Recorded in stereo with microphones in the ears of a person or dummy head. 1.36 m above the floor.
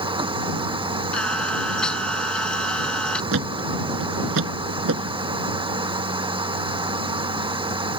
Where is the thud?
75° right (ahead or behind).